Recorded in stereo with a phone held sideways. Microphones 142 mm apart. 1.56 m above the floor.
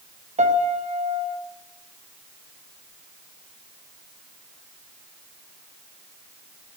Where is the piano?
55° right (ahead or behind), 0.6 m.